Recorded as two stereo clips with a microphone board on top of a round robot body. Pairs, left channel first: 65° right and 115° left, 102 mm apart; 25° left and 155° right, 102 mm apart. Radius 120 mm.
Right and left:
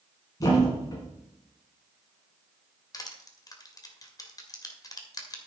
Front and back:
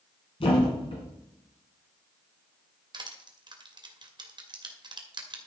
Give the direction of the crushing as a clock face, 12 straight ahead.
4 o'clock.